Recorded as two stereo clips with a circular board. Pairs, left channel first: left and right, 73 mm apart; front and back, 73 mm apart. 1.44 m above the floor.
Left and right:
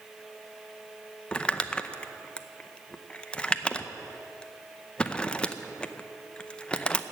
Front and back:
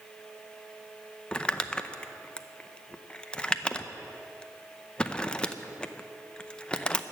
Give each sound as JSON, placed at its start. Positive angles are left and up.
{"t": 1.3, "sound": "crumpling", "azimuth_deg": 45, "distance_m": 0.6}